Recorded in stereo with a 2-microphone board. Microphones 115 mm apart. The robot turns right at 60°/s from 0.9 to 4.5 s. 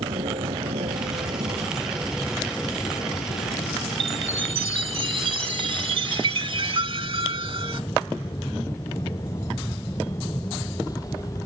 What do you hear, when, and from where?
0.0 s an aircraft: 80° right; by 11.5 s 35° left (ahead or behind)
4.0 s a chime: 90° right; by 7.8 s 60° right